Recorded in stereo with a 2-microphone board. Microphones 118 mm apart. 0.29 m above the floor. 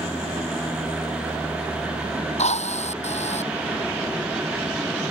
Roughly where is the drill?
Left.